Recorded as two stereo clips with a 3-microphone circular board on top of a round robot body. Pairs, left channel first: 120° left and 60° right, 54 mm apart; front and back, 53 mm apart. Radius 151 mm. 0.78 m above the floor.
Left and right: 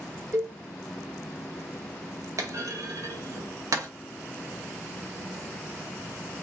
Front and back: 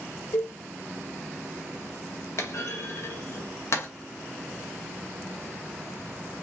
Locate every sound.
0.3 s a cowbell: 20° right, 1.0 m
2.4 s a clunk: 35° right, 0.6 m